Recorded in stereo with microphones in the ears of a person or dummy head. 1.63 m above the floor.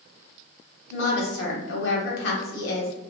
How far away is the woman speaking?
About 1.2 m.